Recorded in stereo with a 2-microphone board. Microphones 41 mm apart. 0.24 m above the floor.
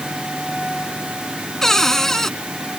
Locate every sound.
1.6 s a cupboard door: 10° left (ahead or behind)